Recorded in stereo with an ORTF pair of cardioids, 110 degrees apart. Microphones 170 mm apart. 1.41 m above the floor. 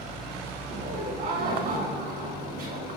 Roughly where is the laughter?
Ahead right.